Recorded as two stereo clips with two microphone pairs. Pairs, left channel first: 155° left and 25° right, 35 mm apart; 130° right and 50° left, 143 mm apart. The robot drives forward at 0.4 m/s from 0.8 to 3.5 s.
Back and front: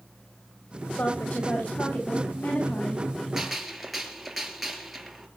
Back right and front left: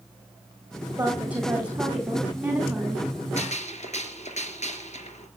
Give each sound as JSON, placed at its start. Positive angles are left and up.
{"t": 1.0, "sound": "a woman speaking", "azimuth_deg": 130, "distance_m": 9.0}
{"t": 3.4, "sound": "a gunshot", "azimuth_deg": -110, "distance_m": 3.0}